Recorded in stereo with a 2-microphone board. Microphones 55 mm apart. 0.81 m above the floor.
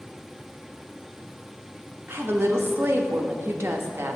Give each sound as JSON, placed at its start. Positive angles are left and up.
{"t": 2.1, "sound": "a woman speaking", "side_deg": -50, "distance_m": 0.8}